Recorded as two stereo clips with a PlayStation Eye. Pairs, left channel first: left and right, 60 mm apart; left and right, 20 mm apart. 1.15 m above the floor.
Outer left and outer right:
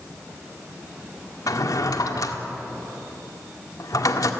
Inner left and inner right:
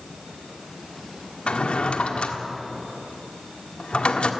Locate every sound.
1.5 s a drawer: 80° left, 1.7 m